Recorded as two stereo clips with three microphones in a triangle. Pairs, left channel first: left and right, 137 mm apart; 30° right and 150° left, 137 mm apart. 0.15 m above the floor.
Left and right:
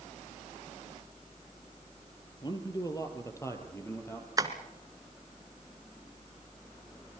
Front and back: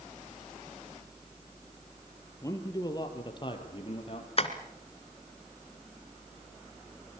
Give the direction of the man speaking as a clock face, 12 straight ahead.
11 o'clock.